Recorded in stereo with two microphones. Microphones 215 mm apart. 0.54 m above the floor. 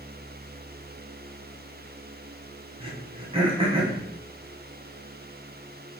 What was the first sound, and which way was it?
Throat clearing, 25° right (ahead or behind).